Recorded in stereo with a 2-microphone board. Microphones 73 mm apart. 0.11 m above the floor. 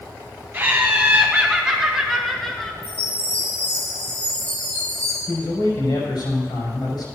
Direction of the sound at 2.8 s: 20° left (ahead or behind).